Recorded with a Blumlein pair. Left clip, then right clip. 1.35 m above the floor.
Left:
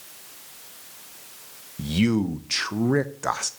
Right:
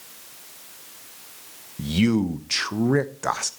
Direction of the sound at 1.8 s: Straight ahead.